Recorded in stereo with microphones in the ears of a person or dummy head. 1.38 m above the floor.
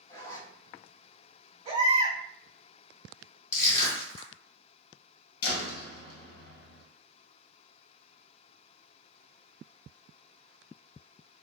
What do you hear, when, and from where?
0.1 s a zipper: 20° left (ahead or behind), 0.6 m
1.6 s a baby crying: 35° right (ahead or behind), 1.2 m
3.5 s crushing: 20° left (ahead or behind), 1.2 m
5.4 s a door slam: 55° left (ahead or behind), 0.8 m